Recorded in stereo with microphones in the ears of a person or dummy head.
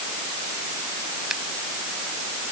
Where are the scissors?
Centre (ahead or behind).